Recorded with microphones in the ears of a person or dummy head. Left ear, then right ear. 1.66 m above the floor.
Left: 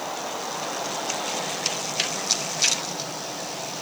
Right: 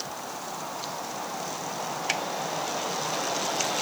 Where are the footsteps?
I don't hear footsteps.